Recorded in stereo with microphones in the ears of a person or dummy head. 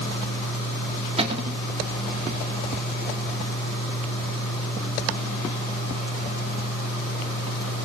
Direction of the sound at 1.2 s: 30° right (ahead or behind).